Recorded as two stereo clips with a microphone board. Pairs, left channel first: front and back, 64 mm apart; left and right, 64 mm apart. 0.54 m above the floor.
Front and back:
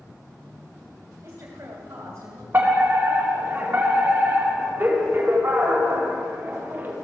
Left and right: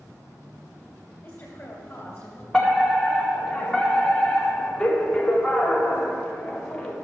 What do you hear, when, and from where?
1.2 s a woman speaking: 145° left, 2.5 m
2.5 s a fire alarm: 165° left, 1.8 m